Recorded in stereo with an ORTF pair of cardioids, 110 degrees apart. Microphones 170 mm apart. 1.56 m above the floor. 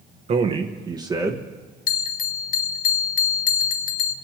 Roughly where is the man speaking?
Ahead right.